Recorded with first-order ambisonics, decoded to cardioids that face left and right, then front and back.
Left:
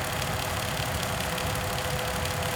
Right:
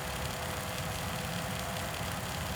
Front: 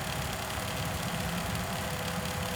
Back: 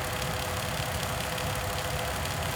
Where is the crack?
No crack in this recording.